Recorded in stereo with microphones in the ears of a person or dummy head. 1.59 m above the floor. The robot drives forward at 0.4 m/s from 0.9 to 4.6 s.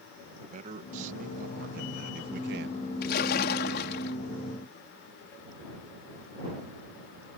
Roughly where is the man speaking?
Right.